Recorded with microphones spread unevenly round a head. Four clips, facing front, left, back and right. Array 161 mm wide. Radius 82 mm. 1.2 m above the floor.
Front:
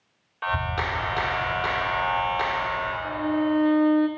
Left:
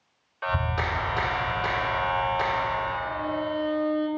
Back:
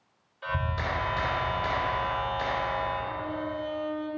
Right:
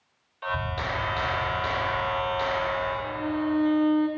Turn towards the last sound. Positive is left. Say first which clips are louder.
# right 1 dB, front 8 dB
turn(degrees=-20)